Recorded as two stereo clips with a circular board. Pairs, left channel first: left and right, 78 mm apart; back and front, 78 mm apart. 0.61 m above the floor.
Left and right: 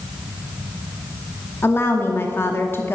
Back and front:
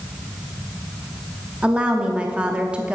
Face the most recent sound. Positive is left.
turn(degrees=70)